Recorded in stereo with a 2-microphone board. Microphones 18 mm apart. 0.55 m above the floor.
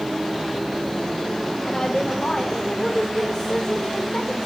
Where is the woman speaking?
40° left (ahead or behind), 1.7 m.